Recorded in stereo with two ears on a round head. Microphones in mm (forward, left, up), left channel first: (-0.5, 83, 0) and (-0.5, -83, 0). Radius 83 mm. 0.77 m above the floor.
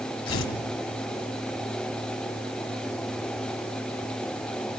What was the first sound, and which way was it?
Tearing paper, 80° left.